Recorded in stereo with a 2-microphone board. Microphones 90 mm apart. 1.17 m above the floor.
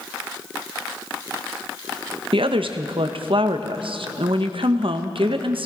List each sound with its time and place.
2.3 s a woman speaking: 75° right (ahead or behind), 0.8 m